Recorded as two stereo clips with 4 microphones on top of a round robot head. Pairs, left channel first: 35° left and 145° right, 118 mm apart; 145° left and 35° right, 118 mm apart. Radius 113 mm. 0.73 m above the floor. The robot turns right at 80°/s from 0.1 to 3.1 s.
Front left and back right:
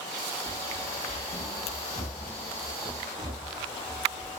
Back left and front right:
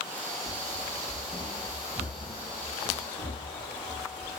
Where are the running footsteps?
35° right, 2.5 m; by 4.4 s straight behind, 5 m.